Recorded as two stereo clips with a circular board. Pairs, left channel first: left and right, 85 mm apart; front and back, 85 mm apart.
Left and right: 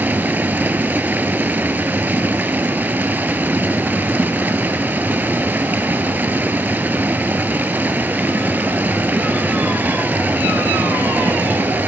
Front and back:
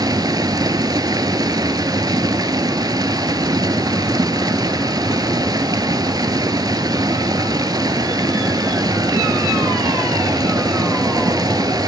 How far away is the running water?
About 0.8 m.